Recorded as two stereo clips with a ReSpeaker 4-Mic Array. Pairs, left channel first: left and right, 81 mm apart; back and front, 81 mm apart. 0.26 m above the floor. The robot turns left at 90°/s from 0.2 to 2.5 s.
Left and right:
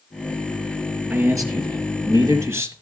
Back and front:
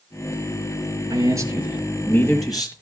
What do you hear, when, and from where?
1.1 s a man speaking: 20° right, 5.5 m; by 2.7 s 145° right, 5.5 m